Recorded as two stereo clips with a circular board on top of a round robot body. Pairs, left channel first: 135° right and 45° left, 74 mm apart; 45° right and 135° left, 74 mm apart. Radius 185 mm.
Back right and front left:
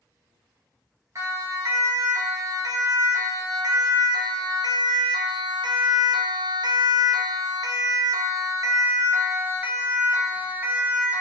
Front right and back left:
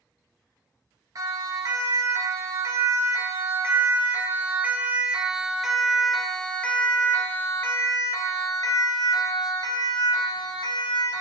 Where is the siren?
95° left, 4.5 m; by 11.2 s 25° right, 4 m.